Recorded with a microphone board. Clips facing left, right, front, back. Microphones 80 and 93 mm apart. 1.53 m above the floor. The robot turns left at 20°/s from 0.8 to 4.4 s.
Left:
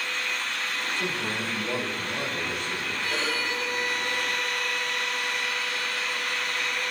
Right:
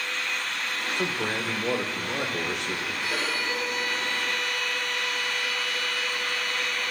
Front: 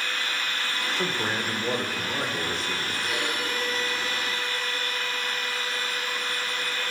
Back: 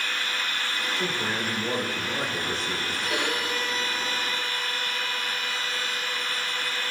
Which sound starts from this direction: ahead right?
A man speaking, at 1.0 s.